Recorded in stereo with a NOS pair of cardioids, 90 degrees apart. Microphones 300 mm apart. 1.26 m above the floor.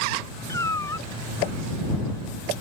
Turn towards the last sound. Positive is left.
turn(degrees=10)